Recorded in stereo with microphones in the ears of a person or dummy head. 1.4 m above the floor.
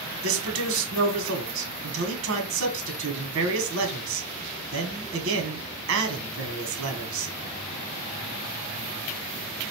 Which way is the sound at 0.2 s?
80° right.